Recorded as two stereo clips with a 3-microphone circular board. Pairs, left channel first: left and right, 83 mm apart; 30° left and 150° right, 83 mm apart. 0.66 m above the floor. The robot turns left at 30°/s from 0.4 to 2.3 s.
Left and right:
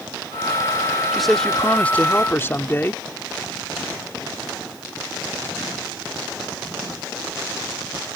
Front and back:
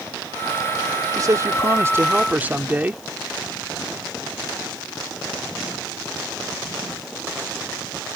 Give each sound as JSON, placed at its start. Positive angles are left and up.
{"t": 1.1, "sound": "a man speaking", "azimuth_deg": 180}